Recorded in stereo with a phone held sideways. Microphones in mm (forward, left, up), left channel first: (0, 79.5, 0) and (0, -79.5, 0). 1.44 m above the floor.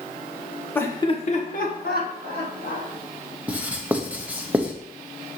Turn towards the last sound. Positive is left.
turn(degrees=-10)  # may be behind; listen again after turning